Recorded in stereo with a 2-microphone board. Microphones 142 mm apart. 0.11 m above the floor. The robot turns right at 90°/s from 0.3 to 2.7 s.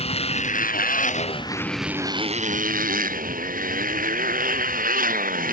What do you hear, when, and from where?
0.0 s a motorcycle: 45° left; by 5.5 s 100° right